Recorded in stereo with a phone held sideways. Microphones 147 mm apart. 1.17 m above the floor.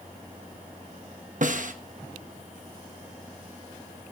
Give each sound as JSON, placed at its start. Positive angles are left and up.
{"t": 1.4, "sound": "a snare drum", "side_deg": -60, "distance_m": 1.0}